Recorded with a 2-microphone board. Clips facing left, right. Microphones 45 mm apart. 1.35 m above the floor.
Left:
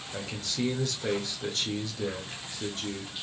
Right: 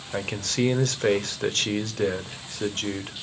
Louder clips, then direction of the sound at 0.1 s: Right 7 dB; 60° right (ahead or behind).